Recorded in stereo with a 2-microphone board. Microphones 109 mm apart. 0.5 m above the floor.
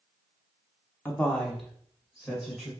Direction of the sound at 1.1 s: 20° left (ahead or behind).